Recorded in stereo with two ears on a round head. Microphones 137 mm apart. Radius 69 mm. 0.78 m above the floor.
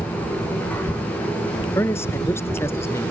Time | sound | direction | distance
1.6 | a man speaking | 15° left (ahead or behind) | ?